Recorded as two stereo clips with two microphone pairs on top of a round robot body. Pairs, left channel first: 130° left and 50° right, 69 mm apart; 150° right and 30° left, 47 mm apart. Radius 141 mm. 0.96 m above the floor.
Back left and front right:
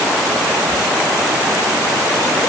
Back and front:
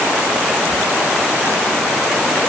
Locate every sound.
Only background noise.